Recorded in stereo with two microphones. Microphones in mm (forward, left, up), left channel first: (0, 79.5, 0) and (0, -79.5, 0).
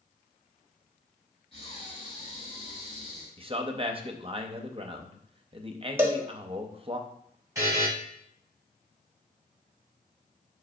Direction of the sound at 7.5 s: 20° right (ahead or behind).